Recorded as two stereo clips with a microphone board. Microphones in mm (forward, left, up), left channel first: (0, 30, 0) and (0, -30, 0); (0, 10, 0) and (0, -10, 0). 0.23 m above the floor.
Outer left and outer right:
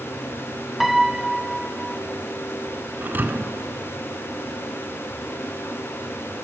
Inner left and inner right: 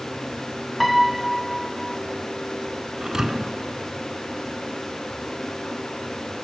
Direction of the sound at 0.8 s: 5° right (ahead or behind).